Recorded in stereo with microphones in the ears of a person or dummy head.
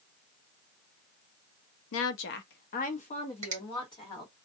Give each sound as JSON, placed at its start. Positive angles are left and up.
{"t": 1.9, "sound": "a woman speaking", "side_deg": 60, "distance_m": 0.5}
{"t": 3.4, "sound": "a finger snap", "side_deg": -30, "distance_m": 0.8}